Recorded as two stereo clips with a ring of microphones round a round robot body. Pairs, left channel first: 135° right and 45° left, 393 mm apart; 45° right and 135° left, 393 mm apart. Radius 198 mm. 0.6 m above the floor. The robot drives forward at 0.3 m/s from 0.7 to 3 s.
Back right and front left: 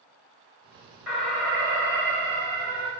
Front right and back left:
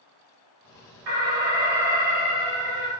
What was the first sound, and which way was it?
An alarm, 135° left.